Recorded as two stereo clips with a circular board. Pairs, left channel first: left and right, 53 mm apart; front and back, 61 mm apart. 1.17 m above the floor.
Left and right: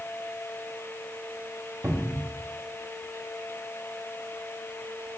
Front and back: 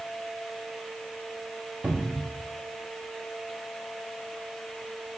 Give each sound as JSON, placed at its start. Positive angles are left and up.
{"t": 1.8, "sound": "a cupboard door", "azimuth_deg": -120, "distance_m": 1.5}